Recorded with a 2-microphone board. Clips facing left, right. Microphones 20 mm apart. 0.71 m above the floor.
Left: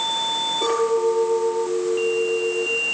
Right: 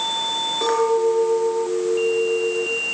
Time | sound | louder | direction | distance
0.6 | a clink | right 2 dB | 65° right (ahead or behind) | 6 m